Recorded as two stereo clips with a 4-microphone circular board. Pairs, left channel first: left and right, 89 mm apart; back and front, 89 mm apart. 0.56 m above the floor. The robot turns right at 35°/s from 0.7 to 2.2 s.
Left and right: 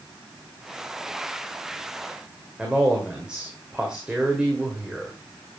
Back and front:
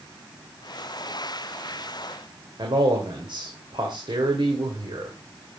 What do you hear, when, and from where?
2.6 s a man speaking: 10° right, 2 m